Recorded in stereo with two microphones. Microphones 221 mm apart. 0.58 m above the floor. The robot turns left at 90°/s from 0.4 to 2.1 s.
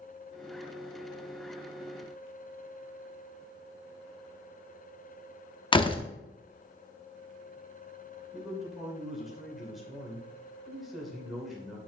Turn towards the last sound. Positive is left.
turn(degrees=0)  # may be behind; listen again after turning